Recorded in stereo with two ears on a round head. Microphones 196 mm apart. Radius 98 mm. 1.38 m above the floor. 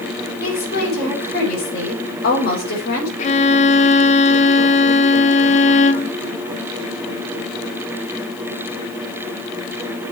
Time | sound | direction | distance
0.4 | a woman speaking | 50° left (ahead or behind) | 6 m
3.2 | a violin | 35° left (ahead or behind) | 0.6 m